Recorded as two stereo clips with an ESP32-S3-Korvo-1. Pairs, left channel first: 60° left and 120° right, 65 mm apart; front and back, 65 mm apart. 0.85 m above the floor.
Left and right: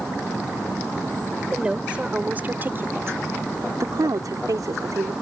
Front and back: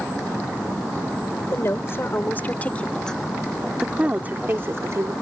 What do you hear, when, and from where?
1.5 s a woman speaking: 45° right; by 5.1 s 140° right